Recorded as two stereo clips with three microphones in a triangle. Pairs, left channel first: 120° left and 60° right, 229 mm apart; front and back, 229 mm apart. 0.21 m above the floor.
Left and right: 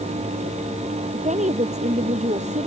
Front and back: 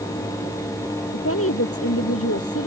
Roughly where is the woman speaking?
Ahead.